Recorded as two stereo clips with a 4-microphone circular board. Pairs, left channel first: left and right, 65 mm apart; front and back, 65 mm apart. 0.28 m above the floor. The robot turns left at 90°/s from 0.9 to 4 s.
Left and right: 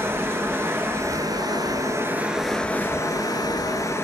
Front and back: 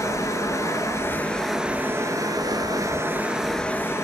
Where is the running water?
35° right, 2.0 m; by 4.0 s 45° left, 2.0 m.